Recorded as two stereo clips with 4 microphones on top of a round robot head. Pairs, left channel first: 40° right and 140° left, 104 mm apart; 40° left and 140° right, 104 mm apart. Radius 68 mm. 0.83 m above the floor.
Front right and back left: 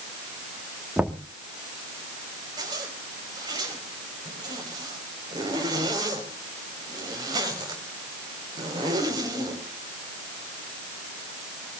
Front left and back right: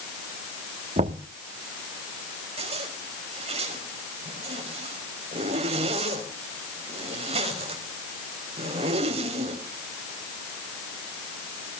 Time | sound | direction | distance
1.0 | knocking | 140° right | 1.4 m
2.6 | a zipper | 165° right | 4 m